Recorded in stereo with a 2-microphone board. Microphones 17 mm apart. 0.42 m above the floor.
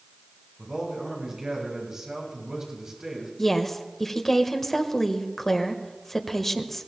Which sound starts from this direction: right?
A man speaking, at 0.6 s.